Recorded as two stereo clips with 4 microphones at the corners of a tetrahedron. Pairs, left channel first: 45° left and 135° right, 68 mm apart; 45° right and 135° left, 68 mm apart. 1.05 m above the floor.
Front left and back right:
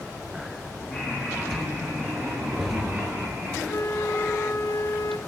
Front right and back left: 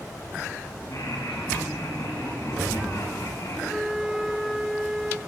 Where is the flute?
50° left, 1.0 m.